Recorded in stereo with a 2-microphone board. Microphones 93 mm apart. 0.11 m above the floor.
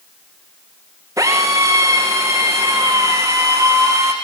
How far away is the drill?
About 6.5 m.